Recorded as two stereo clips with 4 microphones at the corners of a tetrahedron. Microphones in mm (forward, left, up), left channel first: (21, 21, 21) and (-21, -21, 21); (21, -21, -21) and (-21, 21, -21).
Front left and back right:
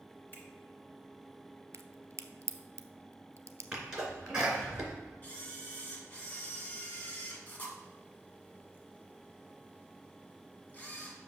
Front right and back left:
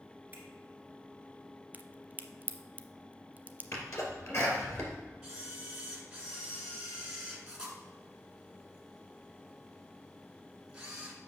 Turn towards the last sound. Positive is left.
turn(degrees=75)